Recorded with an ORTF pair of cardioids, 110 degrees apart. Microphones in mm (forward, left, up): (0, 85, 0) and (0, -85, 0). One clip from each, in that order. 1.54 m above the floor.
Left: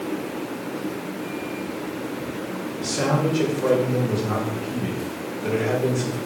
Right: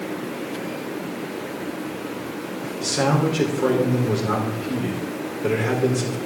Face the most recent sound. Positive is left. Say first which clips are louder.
# right 2 dB
turn(degrees=-70)